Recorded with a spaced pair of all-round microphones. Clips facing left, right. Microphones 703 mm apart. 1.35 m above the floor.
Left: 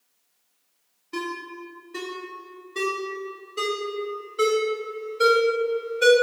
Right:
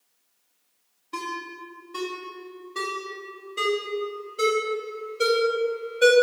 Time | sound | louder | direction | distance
1.1 | a ringtone | left 5 dB | 5° right (ahead or behind) | 1.0 m